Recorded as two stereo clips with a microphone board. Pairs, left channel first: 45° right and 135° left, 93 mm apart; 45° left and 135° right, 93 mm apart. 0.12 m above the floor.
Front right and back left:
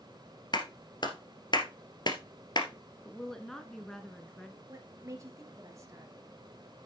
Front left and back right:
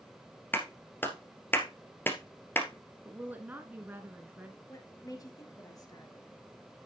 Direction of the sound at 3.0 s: 120° right.